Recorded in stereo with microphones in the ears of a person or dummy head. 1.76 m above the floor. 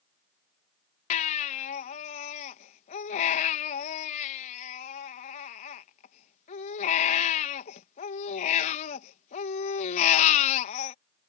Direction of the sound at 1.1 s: 45° left (ahead or behind).